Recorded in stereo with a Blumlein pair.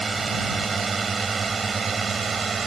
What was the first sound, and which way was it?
A drone, 15° right.